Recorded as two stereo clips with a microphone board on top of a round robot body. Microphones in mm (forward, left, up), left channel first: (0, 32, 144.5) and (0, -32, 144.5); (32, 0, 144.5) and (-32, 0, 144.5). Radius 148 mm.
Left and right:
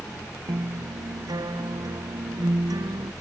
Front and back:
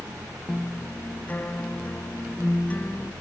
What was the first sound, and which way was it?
A guitar, 70° right.